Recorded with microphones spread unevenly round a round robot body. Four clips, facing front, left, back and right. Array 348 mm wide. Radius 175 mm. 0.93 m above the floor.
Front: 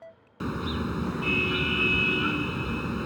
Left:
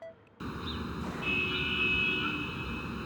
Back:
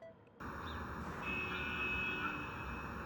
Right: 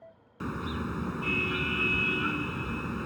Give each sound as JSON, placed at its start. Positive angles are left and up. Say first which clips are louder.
{"t": 0.4, "sound": "a car horn", "louder": "right 4 dB, front 15 dB", "azimuth_deg": -15}